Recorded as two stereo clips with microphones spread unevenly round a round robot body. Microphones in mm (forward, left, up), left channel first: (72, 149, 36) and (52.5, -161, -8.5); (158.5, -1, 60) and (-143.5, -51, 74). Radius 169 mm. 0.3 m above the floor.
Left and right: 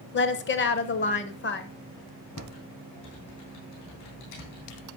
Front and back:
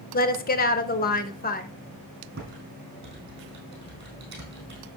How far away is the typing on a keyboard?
About 3.5 m.